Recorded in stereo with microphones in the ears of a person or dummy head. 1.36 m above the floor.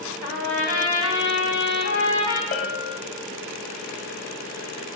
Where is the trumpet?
75° left (ahead or behind), 3.5 m.